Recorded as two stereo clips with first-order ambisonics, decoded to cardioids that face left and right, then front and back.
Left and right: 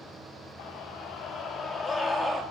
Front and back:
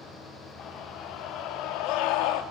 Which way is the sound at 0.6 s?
50° left.